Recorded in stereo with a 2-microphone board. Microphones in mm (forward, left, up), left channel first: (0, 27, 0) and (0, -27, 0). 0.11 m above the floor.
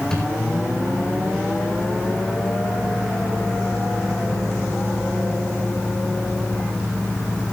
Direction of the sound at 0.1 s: 15° left (ahead or behind).